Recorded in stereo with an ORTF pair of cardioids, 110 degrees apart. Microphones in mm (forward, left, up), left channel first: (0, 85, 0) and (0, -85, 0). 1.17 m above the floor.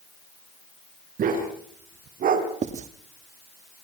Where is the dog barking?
55° right, 5 m.